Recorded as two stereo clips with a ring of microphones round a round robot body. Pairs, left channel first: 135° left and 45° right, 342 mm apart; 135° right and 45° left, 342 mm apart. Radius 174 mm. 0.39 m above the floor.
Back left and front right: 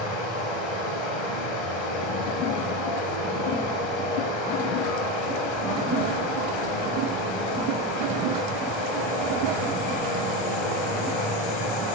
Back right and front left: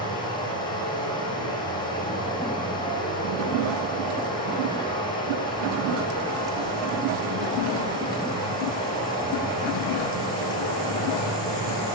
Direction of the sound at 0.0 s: 145° left.